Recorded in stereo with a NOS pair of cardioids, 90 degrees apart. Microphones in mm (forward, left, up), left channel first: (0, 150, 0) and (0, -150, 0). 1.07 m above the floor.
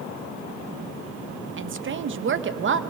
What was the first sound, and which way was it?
A woman speaking, 40° right.